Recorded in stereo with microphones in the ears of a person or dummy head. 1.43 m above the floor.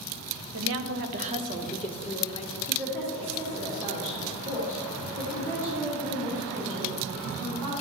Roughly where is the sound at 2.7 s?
Right.